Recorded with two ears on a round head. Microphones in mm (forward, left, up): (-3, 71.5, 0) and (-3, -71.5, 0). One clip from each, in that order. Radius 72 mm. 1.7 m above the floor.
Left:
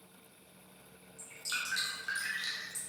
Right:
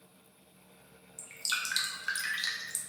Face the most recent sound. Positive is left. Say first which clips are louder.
# right 4 dB
turn(degrees=-80)